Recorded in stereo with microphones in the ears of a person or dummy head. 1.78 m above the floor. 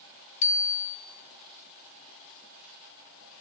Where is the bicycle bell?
45° left (ahead or behind), 3 m.